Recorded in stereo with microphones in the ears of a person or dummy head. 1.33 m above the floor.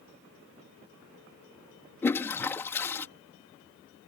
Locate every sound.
2.0 s a toilet flushing: 15° left (ahead or behind)